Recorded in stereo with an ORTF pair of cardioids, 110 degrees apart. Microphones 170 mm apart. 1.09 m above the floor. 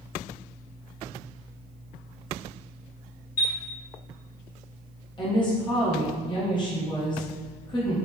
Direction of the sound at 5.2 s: 25° left.